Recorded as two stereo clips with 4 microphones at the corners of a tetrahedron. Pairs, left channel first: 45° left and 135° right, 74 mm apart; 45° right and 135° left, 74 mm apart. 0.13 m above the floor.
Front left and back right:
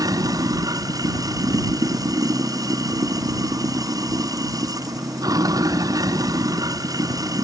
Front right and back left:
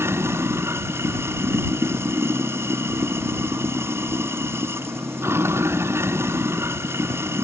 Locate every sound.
0.0 s running water: 170° right